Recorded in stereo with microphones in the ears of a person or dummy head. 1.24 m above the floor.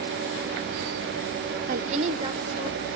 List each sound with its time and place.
1.7 s a woman speaking: 45° right (ahead or behind), 0.6 m; by 2.9 s 20° right (ahead or behind), 2 m